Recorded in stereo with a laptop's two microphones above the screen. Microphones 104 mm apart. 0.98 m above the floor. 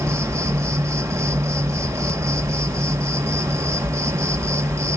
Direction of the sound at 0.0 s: 25° right (ahead or behind).